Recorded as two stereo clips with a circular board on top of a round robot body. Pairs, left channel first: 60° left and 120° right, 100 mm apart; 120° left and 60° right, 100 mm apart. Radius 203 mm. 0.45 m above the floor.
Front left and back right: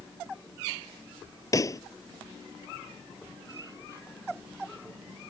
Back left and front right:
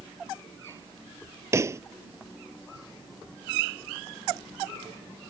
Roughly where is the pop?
Ahead.